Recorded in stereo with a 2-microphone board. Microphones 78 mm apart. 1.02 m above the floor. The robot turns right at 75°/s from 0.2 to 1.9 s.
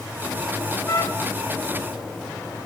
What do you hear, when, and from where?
0.9 s a trumpet: 130° left, 1.7 m; by 1.3 s 165° left, 1.7 m